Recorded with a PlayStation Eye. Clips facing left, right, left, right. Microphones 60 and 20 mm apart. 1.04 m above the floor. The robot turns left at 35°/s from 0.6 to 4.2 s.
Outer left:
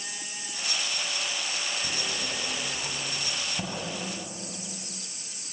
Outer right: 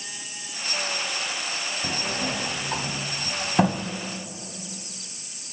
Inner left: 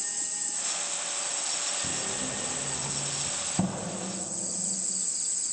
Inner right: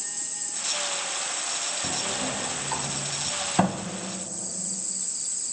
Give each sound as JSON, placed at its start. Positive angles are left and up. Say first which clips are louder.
{"t": 1.8, "sound": "a sliding door", "louder": "outer right 5 dB, inner right 5 dB", "side_deg": -45, "distance_m": 2.0}